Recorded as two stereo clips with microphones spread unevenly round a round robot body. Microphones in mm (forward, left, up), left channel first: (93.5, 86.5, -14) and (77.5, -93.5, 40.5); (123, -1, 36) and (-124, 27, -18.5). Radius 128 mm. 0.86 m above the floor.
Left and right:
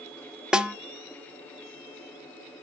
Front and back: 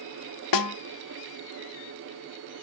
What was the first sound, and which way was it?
A snare drum, 10° right.